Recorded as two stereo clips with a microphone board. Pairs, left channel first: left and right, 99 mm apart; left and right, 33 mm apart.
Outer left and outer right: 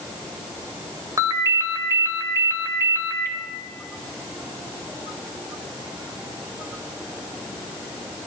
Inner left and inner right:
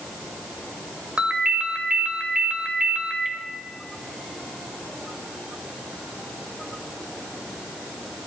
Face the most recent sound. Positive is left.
turn(degrees=-35)  # may be behind; listen again after turning